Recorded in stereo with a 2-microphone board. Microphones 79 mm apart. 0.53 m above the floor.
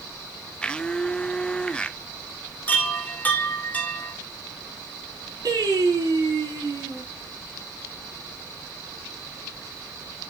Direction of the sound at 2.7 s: 20° left (ahead or behind).